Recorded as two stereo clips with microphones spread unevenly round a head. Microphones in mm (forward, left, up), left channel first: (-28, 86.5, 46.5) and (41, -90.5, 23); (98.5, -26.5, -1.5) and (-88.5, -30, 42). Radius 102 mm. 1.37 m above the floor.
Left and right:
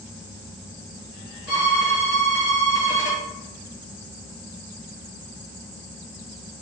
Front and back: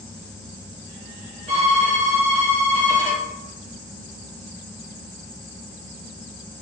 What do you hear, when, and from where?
1.5 s a violin: 125° left, 1.3 m